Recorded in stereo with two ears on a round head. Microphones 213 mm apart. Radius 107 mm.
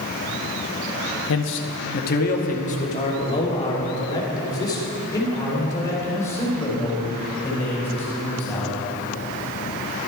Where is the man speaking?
60° left (ahead or behind), 0.8 m; by 8.8 s 10° left (ahead or behind), 4.5 m.